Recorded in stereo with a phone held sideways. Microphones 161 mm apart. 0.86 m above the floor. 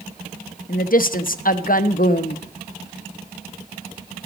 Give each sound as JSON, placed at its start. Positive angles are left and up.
{"t": 0.7, "sound": "a woman speaking", "side_deg": 60, "distance_m": 0.7}